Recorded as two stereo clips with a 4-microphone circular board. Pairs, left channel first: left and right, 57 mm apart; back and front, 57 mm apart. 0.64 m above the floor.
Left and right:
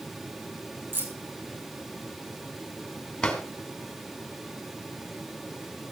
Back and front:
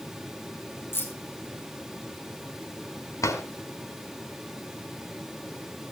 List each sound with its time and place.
0.9 s keys jangling: 140° right, 3 m
3.2 s a drawer: 170° left, 2 m